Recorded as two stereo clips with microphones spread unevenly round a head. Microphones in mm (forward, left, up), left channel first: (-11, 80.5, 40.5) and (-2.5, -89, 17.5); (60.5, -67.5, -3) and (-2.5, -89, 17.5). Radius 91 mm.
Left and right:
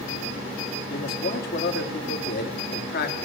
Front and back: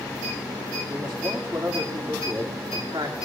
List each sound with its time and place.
0.9 s a man speaking: 125° left, 1.9 m